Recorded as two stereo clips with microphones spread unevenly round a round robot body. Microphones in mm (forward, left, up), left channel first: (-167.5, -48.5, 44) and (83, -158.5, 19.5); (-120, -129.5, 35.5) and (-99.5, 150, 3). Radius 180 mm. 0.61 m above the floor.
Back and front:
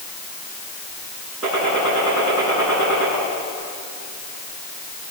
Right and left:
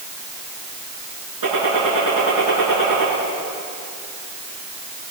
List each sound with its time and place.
1.4 s a gunshot: 65° left, 9.5 m